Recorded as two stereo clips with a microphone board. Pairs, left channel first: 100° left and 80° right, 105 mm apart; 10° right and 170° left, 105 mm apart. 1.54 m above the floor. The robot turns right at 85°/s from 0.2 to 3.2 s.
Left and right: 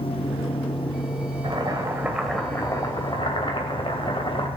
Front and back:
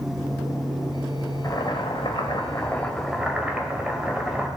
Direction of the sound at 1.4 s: 60° right.